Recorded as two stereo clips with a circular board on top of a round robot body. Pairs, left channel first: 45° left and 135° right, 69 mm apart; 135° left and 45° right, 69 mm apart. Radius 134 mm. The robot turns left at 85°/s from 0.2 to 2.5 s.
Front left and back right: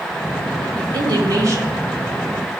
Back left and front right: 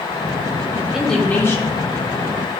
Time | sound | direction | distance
0.7 | a woman speaking | 110° right | 2.5 m